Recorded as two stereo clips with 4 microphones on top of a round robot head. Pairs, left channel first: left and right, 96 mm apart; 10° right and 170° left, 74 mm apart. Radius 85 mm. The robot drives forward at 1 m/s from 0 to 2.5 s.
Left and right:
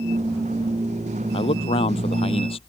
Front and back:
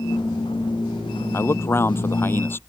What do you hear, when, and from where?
1.3 s a man speaking: 50° left; by 2.6 s 55° left